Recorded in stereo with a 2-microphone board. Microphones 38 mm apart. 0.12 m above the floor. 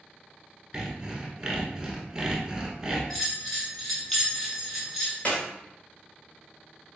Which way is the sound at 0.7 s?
15° right (ahead or behind).